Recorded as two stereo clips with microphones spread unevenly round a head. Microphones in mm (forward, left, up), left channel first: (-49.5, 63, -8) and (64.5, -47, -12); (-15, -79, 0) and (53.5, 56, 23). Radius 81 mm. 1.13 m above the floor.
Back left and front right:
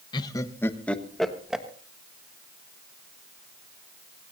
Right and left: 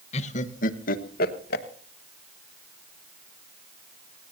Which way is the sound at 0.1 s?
160° right.